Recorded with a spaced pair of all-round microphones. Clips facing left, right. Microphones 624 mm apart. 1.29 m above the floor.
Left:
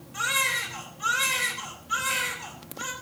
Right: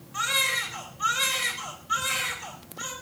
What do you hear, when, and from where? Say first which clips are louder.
0.1 s a baby crying: right 1 dB; 5° right (ahead or behind), 4 m